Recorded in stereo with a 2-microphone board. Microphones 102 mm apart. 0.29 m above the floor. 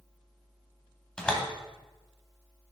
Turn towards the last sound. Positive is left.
turn(degrees=10)  # may be behind; listen again after turning